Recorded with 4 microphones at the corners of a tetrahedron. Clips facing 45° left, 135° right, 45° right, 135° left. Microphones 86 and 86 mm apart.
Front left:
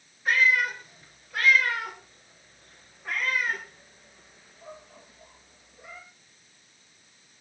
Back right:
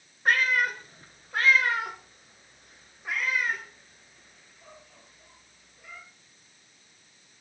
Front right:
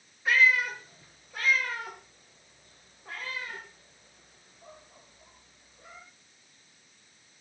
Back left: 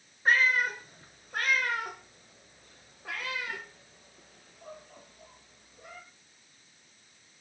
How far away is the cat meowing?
About 2.5 m.